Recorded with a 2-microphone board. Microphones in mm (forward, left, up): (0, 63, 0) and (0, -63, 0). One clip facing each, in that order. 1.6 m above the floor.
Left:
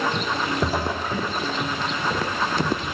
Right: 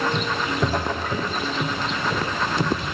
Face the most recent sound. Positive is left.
turn(degrees=15)  # may be behind; listen again after turning